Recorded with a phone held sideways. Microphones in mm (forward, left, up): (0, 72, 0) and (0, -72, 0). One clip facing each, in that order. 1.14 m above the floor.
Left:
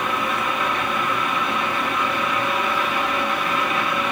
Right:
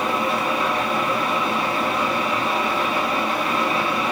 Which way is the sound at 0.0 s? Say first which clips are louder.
Right 2 dB; 30° right (ahead or behind).